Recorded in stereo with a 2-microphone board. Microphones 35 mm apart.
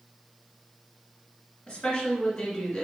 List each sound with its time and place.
1.7 s a woman speaking: 25° left (ahead or behind), 1.5 m